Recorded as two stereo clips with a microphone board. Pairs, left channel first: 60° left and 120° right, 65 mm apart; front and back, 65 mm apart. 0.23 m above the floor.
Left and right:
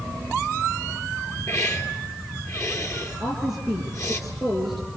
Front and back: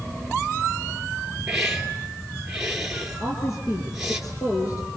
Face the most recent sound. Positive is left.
turn(degrees=-30)